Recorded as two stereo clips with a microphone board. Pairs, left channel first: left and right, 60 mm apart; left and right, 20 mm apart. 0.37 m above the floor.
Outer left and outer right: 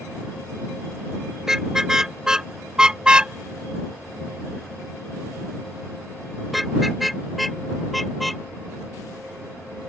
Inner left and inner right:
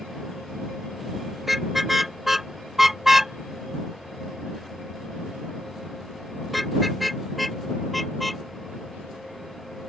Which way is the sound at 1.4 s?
10° right (ahead or behind).